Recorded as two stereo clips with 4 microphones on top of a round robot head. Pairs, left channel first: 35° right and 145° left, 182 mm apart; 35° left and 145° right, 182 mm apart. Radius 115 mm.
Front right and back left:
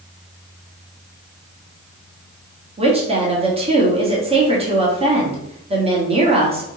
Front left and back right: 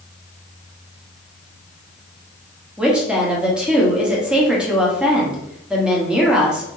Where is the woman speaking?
135° left, 1.4 m.